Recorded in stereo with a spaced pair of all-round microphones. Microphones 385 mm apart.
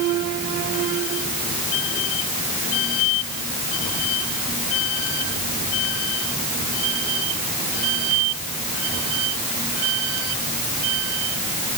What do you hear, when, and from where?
Only background noise.